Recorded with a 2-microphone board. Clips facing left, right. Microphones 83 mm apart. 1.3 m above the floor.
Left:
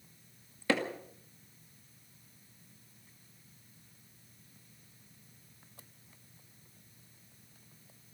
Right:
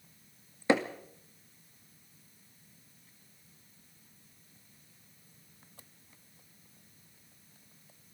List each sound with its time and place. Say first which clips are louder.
0.7 s hammering: right 4 dB; 20° right (ahead or behind), 2.5 m